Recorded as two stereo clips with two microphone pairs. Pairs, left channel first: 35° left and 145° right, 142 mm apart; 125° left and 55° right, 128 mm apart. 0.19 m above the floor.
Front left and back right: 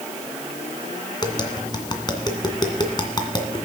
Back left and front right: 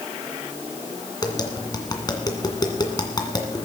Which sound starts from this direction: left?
Tapping, at 1.2 s.